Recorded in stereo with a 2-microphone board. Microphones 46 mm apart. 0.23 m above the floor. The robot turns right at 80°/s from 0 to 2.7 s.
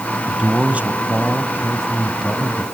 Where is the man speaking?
155° right, 1.6 m; by 2.6 s 35° left, 1.6 m.